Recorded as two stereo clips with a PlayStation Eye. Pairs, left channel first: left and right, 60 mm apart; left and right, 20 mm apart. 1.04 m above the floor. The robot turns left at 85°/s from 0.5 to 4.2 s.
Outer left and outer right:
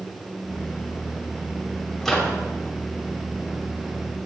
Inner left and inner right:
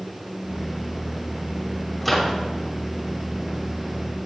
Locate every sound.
2.0 s a microwave: 10° left, 3 m; by 2.4 s 20° right, 3 m